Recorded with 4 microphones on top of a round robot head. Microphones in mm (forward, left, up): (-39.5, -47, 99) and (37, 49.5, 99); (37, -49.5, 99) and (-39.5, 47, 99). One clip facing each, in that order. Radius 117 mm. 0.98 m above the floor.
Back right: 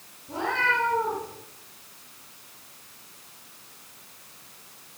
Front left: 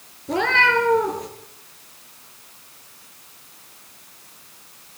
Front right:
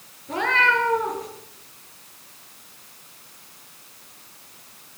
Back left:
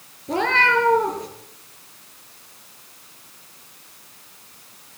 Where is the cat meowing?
70° left, 5.5 m.